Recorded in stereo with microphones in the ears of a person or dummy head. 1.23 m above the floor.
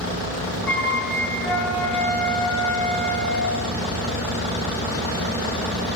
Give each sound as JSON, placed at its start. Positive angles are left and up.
{"t": 0.7, "sound": "a flute", "side_deg": 10, "distance_m": 5.0}